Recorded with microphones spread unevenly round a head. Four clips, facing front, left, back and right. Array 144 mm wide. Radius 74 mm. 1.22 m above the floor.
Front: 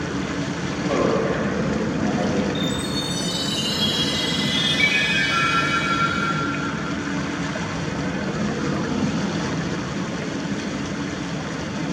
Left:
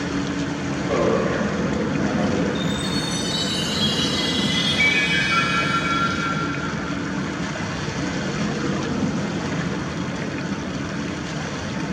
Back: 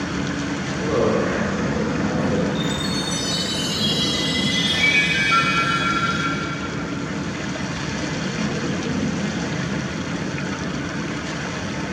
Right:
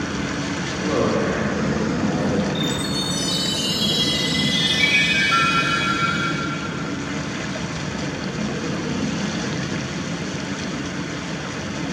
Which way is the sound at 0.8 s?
30° left.